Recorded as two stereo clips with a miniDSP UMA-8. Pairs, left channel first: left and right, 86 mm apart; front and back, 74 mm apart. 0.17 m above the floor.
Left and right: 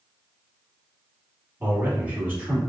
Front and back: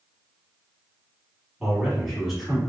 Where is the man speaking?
105° right, 1.2 m.